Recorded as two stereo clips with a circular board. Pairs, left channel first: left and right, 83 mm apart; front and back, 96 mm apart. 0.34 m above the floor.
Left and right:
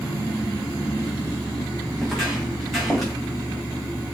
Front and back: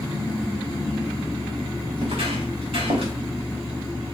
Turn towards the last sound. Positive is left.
turn(degrees=180)